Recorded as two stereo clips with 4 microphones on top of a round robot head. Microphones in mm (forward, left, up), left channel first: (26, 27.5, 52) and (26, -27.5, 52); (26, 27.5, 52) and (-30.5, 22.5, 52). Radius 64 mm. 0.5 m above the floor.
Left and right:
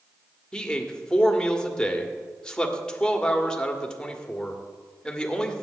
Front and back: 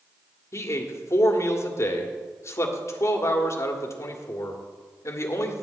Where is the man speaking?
15° left, 1.7 m.